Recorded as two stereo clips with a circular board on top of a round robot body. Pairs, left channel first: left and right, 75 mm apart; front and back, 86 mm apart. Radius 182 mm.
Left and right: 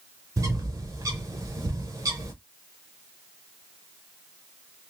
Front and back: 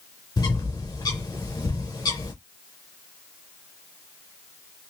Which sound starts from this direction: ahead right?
A bird, at 0.4 s.